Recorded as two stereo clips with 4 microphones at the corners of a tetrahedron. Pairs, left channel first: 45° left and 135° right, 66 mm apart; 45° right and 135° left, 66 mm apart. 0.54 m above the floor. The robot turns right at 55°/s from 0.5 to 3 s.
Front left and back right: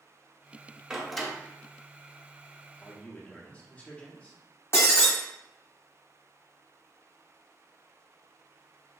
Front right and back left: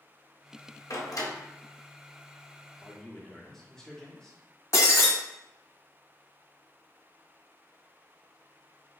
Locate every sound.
0.9 s a door slam: 60° right, 0.6 m; by 1.3 s 35° right, 0.6 m
2.8 s a man speaking: 20° left, 0.7 m; by 4.4 s 30° left, 0.7 m
4.7 s breaking glass: straight ahead, 1.2 m